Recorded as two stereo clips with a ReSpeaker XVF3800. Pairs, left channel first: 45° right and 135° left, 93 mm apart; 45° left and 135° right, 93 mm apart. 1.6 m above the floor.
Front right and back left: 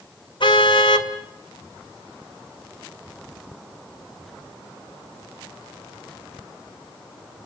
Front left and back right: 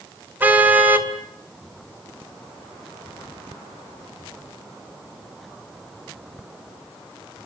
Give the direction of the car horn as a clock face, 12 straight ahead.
2 o'clock.